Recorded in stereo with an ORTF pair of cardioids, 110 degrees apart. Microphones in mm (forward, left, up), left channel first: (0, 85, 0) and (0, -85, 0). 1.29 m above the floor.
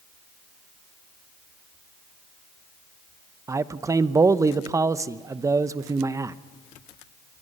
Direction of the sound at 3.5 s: 20° right.